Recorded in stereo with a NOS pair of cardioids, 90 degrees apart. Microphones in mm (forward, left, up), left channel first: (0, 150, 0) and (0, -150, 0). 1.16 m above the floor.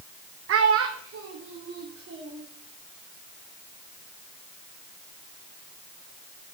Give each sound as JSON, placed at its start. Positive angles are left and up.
{"t": 0.5, "sound": "a child speaking", "azimuth_deg": -50, "distance_m": 0.6}